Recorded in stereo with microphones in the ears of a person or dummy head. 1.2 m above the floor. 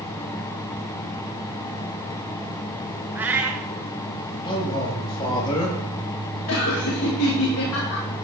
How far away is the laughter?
About 1.5 m.